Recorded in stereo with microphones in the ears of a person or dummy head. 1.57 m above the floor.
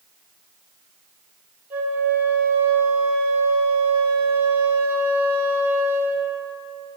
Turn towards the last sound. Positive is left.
turn(degrees=-10)  # may be behind; listen again after turning